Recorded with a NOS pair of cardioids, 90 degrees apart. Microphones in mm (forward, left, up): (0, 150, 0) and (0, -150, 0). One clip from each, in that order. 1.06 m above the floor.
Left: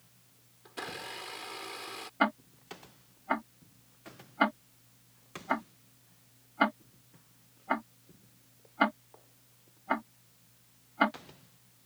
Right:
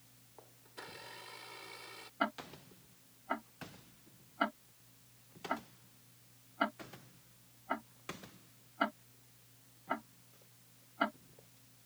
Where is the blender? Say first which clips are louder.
Left 10 dB; 65° left.